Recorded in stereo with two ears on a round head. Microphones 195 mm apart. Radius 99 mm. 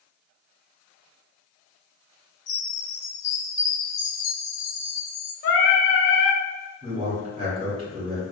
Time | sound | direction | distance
2.5 | a chime | 35° left (ahead or behind) | 0.7 m
5.4 | singing | 45° left (ahead or behind) | 0.5 m
6.8 | a man speaking | 25° right (ahead or behind) | 0.9 m